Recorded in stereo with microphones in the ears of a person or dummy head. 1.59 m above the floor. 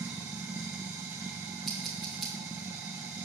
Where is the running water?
5° right (ahead or behind), 0.7 m.